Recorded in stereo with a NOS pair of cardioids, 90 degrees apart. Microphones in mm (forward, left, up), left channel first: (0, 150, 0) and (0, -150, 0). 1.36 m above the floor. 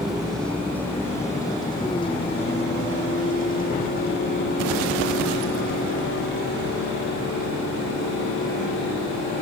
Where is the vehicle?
Straight ahead; by 9.4 s 55° left.